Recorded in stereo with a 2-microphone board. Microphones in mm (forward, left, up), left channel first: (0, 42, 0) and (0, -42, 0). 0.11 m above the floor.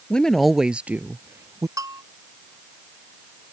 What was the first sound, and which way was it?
A woman speaking, 10° left (ahead or behind).